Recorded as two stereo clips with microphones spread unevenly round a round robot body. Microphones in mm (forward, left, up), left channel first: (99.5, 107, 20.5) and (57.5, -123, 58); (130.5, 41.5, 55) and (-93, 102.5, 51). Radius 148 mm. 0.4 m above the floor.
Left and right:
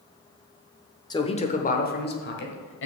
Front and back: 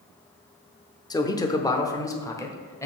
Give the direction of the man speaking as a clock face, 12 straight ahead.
10 o'clock.